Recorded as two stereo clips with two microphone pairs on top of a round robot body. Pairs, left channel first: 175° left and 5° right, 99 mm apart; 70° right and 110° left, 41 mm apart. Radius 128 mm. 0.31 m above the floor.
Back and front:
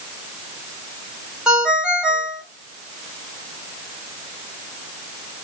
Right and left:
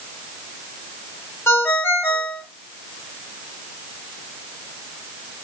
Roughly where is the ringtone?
Right.